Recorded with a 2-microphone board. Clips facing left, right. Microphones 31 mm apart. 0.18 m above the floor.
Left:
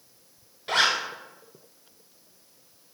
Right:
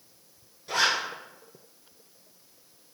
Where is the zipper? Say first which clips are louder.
Left 2 dB; 55° left (ahead or behind), 1.1 m.